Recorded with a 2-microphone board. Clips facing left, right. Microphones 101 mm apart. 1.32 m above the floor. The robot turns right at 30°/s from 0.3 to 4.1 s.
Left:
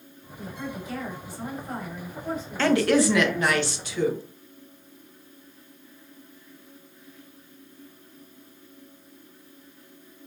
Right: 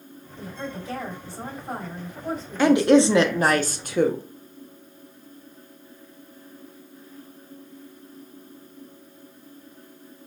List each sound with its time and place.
0.4 s a woman speaking: 95° right, 3 m; by 3.6 s straight ahead, 3 m
2.6 s a woman speaking: 165° right, 0.7 m; by 4.2 s 120° right, 0.7 m